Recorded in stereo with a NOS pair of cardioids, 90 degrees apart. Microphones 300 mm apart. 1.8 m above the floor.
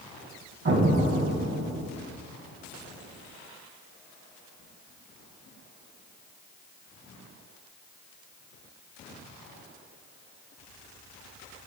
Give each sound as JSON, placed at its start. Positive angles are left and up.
{"t": 0.7, "sound": "an explosion", "azimuth_deg": -45, "distance_m": 1.5}